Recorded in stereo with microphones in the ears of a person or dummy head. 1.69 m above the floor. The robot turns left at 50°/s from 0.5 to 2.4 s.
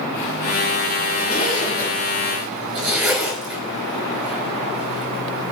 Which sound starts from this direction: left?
A zipper, at 1.2 s.